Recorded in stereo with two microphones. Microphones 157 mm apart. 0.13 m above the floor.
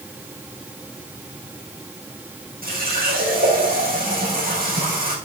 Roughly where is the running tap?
Right.